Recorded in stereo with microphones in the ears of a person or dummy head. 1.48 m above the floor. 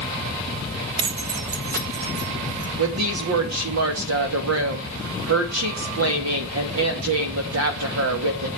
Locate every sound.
1.0 s keys jangling: 25° right (ahead or behind), 0.6 m; by 2.7 s 45° right (ahead or behind), 2 m
2.8 s a woman speaking: 75° right (ahead or behind), 2.5 m